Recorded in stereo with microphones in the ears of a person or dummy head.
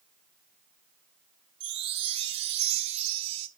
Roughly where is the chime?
Right.